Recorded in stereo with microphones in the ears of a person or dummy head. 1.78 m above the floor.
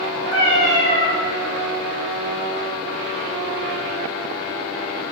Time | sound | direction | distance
0.3 | a cat meowing | 45° left (ahead or behind) | 2 m